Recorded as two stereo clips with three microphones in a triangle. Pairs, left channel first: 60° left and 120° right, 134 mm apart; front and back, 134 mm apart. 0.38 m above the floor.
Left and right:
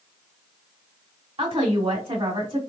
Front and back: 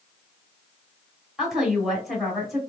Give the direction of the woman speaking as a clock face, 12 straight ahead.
3 o'clock.